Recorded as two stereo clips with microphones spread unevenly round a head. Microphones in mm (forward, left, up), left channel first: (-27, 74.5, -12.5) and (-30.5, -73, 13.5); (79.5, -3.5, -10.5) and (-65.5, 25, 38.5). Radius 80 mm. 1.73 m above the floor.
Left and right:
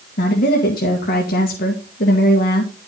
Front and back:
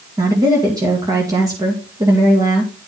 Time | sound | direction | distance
0.2 | a woman speaking | 110° left | 2 m